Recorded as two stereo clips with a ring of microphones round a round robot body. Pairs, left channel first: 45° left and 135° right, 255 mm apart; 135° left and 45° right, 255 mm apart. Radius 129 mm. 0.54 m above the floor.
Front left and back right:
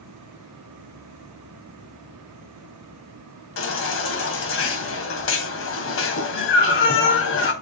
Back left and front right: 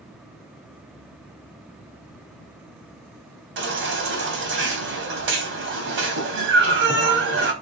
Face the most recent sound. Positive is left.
turn(degrees=0)